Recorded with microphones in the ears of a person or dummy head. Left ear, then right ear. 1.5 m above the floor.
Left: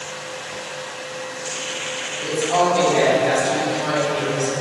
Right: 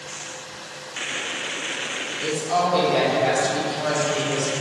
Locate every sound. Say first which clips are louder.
2.2 s a woman speaking: left 4 dB; 50° right (ahead or behind), 3.5 m